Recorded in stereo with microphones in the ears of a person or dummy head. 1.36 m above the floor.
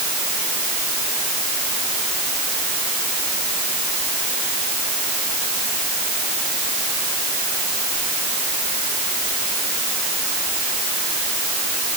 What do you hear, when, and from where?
Only background noise.